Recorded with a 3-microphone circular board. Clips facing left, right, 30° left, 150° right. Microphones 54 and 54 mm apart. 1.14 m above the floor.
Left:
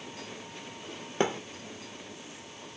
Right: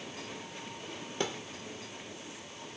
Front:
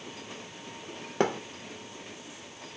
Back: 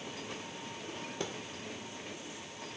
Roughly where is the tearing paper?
No tearing paper in this recording.